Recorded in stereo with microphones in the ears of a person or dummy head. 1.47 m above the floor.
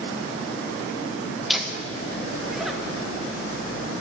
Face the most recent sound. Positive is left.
turn(degrees=0)  # may be behind; listen again after turning